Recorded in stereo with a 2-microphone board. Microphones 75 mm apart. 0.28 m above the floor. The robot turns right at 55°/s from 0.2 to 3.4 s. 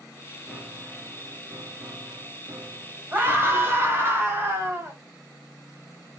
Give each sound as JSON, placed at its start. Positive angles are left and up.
{"t": 0.5, "sound": "a piano", "side_deg": 5, "distance_m": 0.9}
{"t": 3.1, "sound": "a scream", "side_deg": -25, "distance_m": 1.6}